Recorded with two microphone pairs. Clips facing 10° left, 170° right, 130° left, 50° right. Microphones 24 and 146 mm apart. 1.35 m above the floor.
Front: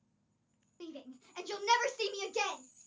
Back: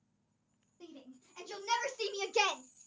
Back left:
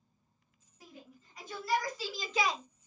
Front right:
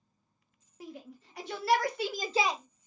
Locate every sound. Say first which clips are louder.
0.8 s a shout: front 5 dB, front right 8 dB; 25° right, 2 m; by 2.6 s 130° right, 0.9 m